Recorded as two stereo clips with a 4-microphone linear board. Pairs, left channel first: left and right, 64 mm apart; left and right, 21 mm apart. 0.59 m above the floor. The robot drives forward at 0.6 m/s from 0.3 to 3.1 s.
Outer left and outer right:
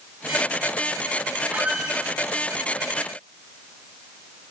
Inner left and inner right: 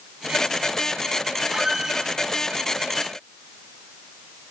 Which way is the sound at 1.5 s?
25° right (ahead or behind).